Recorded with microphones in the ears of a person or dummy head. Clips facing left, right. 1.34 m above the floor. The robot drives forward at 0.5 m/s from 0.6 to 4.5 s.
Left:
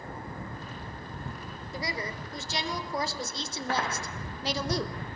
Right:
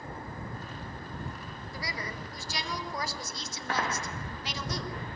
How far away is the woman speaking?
About 4 m.